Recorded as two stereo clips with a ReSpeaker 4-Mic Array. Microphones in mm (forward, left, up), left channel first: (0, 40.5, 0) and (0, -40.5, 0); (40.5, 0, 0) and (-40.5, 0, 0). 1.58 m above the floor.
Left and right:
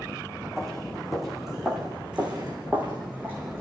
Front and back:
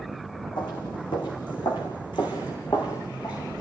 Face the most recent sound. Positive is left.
turn(degrees=-30)